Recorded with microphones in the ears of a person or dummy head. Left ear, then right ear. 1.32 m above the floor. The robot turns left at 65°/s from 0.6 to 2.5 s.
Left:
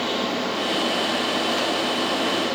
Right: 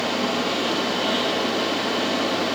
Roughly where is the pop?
I don't hear a pop.